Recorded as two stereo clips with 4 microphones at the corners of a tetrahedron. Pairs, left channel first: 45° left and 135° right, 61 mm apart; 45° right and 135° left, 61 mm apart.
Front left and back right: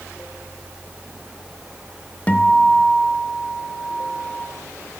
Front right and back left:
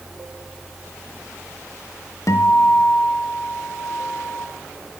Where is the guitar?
20° right, 0.8 m.